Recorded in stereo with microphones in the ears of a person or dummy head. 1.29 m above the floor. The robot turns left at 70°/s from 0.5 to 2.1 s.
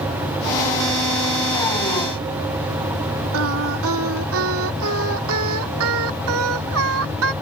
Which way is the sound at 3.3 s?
75° right (ahead or behind).